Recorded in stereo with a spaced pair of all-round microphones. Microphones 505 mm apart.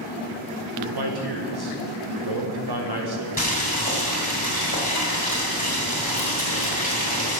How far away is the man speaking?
About 1.1 m.